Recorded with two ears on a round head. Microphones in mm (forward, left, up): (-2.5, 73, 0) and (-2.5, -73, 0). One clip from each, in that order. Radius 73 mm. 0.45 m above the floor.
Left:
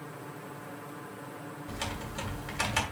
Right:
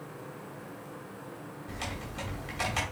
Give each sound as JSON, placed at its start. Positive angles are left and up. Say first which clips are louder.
{"t": 1.7, "sound": "typing on a keyboard", "louder": "left 1 dB", "side_deg": 20, "distance_m": 2.0}